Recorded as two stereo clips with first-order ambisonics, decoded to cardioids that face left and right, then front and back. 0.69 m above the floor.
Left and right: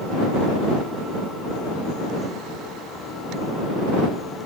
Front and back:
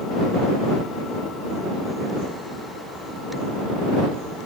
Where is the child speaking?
I don't hear a child speaking.